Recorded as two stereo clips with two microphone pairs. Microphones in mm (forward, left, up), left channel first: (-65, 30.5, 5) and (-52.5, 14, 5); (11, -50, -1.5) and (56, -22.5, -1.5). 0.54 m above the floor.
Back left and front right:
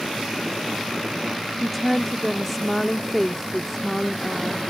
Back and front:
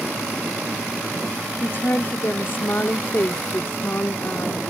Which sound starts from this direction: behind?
A woman speaking, at 1.6 s.